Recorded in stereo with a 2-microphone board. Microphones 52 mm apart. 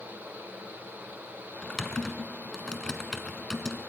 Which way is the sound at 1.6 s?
15° left (ahead or behind).